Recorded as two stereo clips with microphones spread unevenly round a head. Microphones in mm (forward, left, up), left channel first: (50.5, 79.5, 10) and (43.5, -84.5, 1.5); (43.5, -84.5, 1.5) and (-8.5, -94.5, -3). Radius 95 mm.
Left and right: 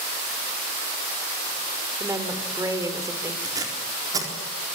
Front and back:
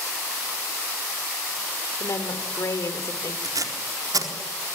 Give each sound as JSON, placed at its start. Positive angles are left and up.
{"t": 2.0, "sound": "a woman speaking", "azimuth_deg": -20, "distance_m": 3.5}
{"t": 3.4, "sound": "tape being pulled", "azimuth_deg": -165, "distance_m": 4.0}